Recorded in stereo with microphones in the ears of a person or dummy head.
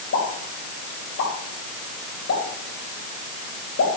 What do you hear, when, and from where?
0.1 s a pop: 75° left (ahead or behind), 6 m